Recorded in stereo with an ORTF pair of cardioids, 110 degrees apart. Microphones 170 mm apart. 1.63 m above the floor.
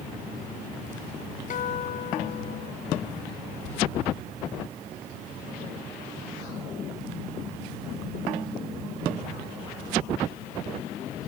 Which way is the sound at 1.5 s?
50° left.